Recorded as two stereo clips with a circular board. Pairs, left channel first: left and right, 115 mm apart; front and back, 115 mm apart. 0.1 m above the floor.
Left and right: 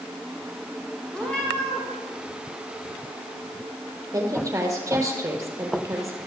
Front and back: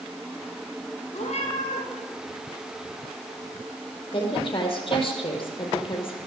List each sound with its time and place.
1.1 s a cat meowing: 5° left, 6.5 m
4.1 s a woman speaking: 30° right, 3.5 m